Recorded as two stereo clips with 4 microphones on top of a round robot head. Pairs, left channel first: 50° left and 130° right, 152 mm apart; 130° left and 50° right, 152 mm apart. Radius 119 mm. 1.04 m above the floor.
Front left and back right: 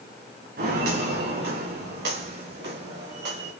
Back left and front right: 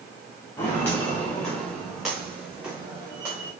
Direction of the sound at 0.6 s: 155° right.